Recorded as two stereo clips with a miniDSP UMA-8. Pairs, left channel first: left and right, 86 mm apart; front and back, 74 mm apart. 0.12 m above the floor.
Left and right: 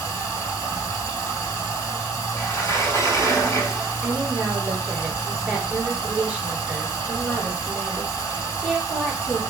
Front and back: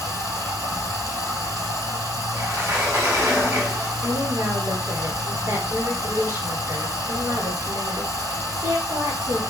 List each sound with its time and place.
0.0 s running water: 150° left, 3 m
2.4 s a sliding door: 135° left, 3 m
4.0 s a woman speaking: 165° right, 2.5 m